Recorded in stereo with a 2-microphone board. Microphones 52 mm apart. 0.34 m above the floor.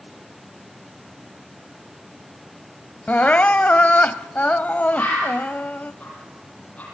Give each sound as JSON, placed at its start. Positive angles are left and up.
{"t": 3.1, "sound": "crying", "side_deg": 30, "distance_m": 0.7}
{"t": 4.9, "sound": "a bird", "side_deg": 30, "distance_m": 7.5}